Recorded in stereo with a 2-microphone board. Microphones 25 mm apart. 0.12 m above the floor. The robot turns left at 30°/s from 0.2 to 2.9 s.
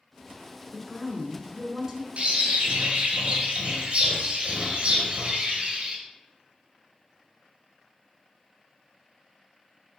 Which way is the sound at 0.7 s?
15° right (ahead or behind).